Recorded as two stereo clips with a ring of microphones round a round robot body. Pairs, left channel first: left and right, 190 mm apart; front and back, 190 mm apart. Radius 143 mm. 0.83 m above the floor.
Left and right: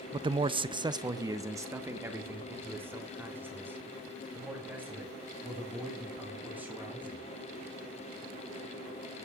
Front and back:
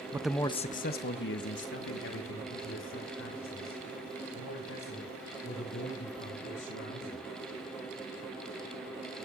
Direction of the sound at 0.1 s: 125° right.